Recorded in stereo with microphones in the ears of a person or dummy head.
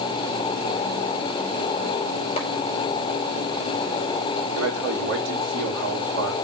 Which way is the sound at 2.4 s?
35° left (ahead or behind).